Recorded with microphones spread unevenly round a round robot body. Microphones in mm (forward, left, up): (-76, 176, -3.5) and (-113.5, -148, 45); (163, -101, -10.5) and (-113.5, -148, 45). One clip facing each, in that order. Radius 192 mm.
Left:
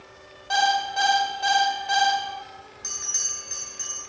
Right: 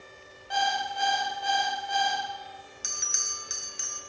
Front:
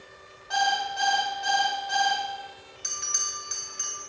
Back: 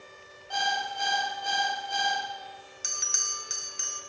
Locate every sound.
0.5 s an alarm clock: 110° left, 1.6 m
2.8 s a bell: 135° right, 1.5 m